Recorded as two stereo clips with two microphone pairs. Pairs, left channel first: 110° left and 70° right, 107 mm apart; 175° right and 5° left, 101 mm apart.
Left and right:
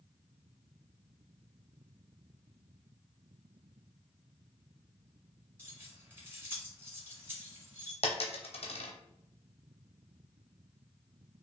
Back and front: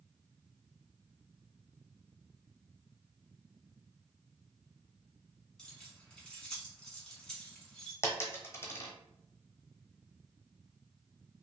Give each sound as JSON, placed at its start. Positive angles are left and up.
{"t": 5.6, "sound": "keys jangling", "azimuth_deg": -105, "distance_m": 1.1}
{"t": 8.0, "sound": "a dropped coin", "azimuth_deg": 125, "distance_m": 0.8}